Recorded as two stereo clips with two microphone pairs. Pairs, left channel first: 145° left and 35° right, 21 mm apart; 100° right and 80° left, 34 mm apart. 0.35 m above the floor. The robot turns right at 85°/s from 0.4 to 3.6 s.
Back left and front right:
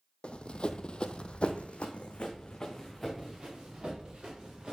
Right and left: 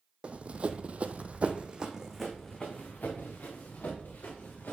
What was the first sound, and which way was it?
Running footsteps, 125° left.